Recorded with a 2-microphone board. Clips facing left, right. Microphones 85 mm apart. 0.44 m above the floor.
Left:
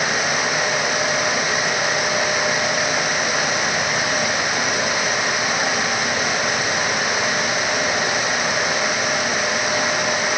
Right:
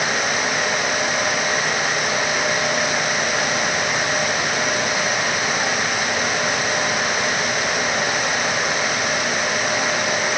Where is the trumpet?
I don't hear a trumpet.